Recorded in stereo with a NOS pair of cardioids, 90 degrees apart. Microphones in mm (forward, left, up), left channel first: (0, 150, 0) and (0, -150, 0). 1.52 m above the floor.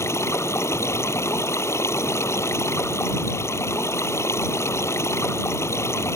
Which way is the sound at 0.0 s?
10° left.